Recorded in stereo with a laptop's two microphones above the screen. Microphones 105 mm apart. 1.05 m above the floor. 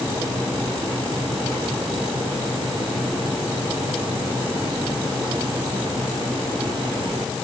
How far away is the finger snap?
I don't hear a finger snap.